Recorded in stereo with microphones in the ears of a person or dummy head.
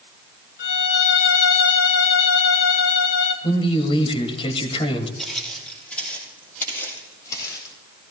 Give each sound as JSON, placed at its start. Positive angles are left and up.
{"t": 0.6, "sound": "a violin", "side_deg": 55, "distance_m": 2.5}
{"t": 3.4, "sound": "a man speaking", "side_deg": 30, "distance_m": 3.0}
{"t": 5.2, "sound": "footsteps", "side_deg": -5, "distance_m": 3.5}